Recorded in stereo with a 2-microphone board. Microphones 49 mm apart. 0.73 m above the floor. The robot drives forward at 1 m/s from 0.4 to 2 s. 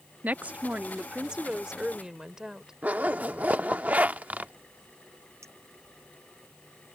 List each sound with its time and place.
0.2 s a woman speaking: 30° right (ahead or behind); by 2.7 s 10° right (ahead or behind)
2.8 s a zipper: 35° right (ahead or behind)
5.4 s a clink: 80° right